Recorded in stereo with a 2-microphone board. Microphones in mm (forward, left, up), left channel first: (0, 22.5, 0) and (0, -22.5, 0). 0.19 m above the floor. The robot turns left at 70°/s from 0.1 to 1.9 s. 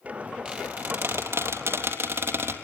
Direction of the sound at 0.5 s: 20° right (ahead or behind).